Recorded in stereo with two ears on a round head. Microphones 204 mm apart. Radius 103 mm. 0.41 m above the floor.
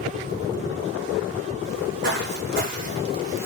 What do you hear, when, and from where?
1.6 s footsteps: 60° right (ahead or behind), 2 m; by 3.5 s 10° right (ahead or behind), 0.9 m